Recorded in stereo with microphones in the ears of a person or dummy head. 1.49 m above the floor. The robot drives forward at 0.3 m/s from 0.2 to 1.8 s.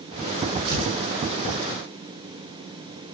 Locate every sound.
0.7 s tearing paper: 80° right, 6.5 m